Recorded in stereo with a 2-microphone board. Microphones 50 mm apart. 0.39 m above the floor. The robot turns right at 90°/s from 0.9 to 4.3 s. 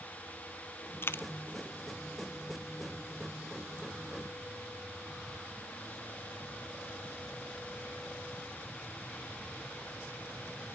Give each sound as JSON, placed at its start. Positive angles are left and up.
{"t": 1.0, "sound": "a dropped coin", "side_deg": 50, "distance_m": 0.5}